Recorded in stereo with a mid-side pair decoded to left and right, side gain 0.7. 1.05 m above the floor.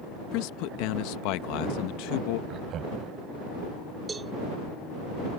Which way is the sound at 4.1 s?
15° right.